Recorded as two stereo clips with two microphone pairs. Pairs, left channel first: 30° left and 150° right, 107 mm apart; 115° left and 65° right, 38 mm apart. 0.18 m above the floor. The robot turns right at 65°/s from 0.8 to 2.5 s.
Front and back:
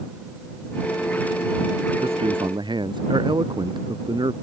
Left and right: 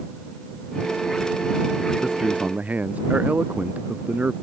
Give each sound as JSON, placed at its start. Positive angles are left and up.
{"t": 2.0, "sound": "a man speaking", "azimuth_deg": -145}